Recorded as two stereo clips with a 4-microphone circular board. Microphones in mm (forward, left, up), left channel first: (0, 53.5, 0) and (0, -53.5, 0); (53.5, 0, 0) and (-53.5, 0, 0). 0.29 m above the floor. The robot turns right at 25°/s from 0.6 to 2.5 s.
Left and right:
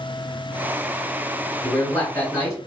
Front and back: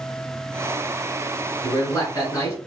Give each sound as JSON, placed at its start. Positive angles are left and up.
{"t": 1.6, "sound": "a man speaking", "azimuth_deg": 25, "distance_m": 1.8}